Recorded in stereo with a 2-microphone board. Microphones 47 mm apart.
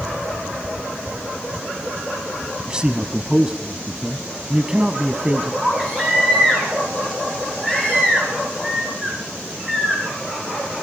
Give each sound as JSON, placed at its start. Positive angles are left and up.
{"t": 2.7, "sound": "a man speaking", "side_deg": -20, "distance_m": 1.3}
{"t": 5.6, "sound": "a baby crying", "side_deg": -10, "distance_m": 7.5}